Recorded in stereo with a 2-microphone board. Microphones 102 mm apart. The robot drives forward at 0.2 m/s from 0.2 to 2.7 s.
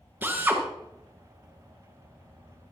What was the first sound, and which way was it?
A drill, 20° right (ahead or behind).